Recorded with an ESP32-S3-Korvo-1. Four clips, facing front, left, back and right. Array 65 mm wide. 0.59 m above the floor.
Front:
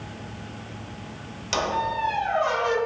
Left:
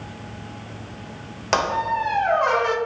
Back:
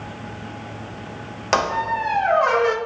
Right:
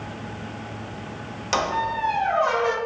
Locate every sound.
1.5 s a squeak: 150° left, 0.8 m